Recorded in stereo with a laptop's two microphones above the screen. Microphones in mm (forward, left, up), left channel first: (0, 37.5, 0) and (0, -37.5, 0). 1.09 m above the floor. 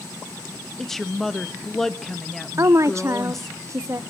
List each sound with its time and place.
0.8 s a woman speaking: 5° left (ahead or behind), 1.3 m
2.6 s a woman speaking: 40° right (ahead or behind), 0.5 m